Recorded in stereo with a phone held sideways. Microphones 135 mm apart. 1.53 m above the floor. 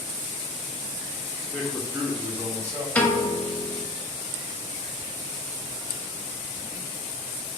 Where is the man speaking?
Centre (ahead or behind), 1.1 m; by 2.9 s 25° right (ahead or behind), 1.5 m.